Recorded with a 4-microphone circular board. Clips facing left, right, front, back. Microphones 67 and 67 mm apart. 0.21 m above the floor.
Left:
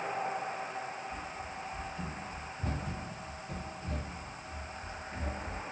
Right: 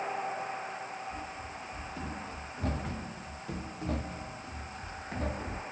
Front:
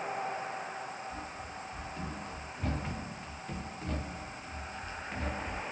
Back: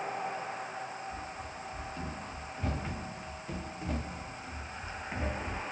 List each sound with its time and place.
1.1 s running footsteps: 85° right, 4.5 m; by 5.6 s 115° right, 1.6 m